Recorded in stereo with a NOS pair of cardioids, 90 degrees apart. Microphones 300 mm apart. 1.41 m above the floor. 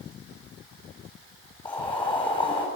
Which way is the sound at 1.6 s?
15° left.